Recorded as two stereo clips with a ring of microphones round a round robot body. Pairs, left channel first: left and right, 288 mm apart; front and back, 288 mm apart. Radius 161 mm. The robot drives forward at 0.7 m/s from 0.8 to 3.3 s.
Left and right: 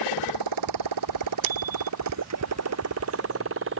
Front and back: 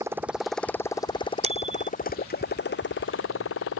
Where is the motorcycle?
100° right; by 3.8 s 45° right.